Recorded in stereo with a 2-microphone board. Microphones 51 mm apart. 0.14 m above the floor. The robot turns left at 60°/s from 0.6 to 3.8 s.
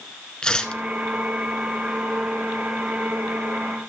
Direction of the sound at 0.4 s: 15° left (ahead or behind).